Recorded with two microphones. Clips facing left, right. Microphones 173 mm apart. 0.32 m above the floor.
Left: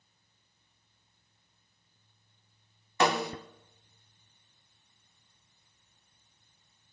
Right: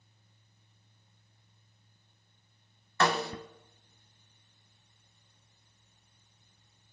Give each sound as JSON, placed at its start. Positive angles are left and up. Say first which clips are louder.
{"t": 3.0, "sound": "a snare drum", "louder": "left 2 dB", "side_deg": 15, "distance_m": 0.6}